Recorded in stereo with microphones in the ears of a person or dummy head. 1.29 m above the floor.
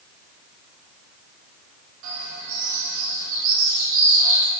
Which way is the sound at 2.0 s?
65° right (ahead or behind).